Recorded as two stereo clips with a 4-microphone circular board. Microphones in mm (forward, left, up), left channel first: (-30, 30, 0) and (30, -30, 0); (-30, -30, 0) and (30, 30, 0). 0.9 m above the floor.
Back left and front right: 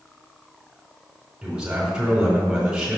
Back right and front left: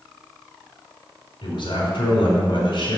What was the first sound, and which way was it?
A man speaking, 130° right.